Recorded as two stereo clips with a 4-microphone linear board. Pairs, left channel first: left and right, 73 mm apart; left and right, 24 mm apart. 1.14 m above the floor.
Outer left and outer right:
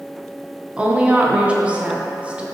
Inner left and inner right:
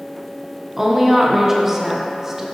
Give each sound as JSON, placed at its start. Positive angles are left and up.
{"t": 0.8, "sound": "a woman speaking", "side_deg": -15, "distance_m": 0.8}